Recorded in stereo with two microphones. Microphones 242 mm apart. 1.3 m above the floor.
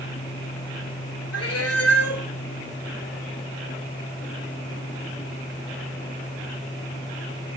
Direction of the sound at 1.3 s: 70° left (ahead or behind).